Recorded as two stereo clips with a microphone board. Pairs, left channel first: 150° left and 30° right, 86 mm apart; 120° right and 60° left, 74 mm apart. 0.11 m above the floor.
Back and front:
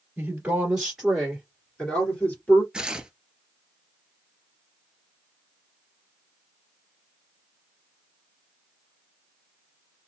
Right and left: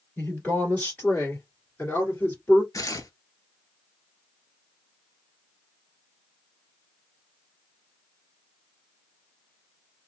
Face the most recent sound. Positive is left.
turn(degrees=-105)